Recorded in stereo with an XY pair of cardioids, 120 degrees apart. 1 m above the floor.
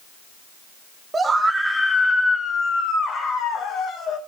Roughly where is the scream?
Ahead right.